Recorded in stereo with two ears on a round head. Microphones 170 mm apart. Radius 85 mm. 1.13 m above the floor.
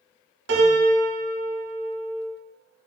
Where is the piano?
65° right (ahead or behind), 1.0 m.